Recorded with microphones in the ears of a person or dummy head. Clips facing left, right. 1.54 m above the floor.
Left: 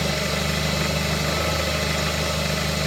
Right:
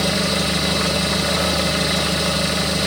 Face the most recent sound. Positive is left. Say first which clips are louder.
# right 5 dB
turn(degrees=-55)  # may be behind; listen again after turning